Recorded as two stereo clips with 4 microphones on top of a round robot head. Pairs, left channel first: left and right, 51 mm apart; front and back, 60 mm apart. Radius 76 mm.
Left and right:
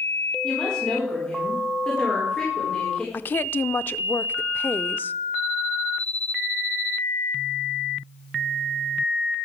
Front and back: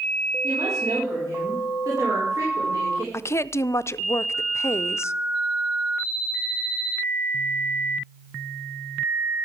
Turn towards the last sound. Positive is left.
turn(degrees=40)